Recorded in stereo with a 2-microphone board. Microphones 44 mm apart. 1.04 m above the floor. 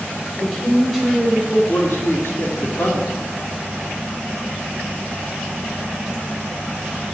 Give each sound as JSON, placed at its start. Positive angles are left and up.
{"t": 0.4, "sound": "a woman speaking", "side_deg": 10, "distance_m": 4.5}
{"t": 1.7, "sound": "a man speaking", "side_deg": 70, "distance_m": 2.5}